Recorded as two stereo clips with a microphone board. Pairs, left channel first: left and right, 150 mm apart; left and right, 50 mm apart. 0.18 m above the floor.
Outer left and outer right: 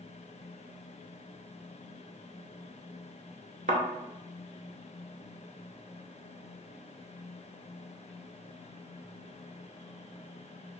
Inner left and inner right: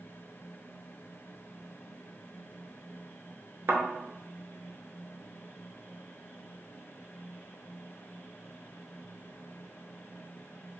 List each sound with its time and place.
3.7 s a thud: 60° right (ahead or behind), 0.6 m